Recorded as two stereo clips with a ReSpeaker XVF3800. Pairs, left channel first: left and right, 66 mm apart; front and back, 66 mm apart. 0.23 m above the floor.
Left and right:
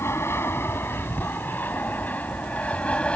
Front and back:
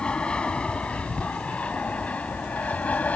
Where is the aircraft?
70° left; by 3.2 s 35° left.